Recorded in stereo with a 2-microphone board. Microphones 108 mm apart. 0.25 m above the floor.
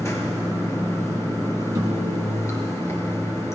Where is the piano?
30° right (ahead or behind), 1.5 m.